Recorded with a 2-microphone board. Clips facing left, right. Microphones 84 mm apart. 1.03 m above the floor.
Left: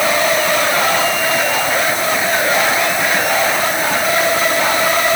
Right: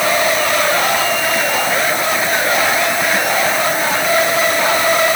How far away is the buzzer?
No buzzer in this recording.